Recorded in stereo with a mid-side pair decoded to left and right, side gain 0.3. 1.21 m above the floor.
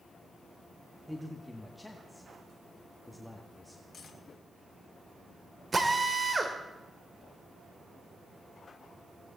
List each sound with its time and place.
1.1 s a man speaking: 10° left, 1.7 m
3.9 s cutlery clinking: 60° left, 2 m
5.7 s a drill: 40° right, 2.5 m